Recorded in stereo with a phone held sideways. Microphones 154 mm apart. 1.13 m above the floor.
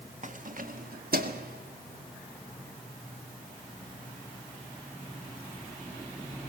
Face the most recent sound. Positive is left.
turn(degrees=-85)